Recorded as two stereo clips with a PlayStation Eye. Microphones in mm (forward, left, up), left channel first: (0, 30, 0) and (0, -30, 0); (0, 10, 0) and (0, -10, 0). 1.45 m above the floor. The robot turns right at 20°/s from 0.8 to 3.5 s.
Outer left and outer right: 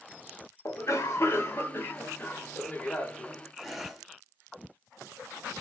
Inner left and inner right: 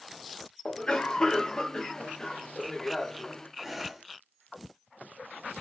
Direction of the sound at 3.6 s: Centre (ahead or behind).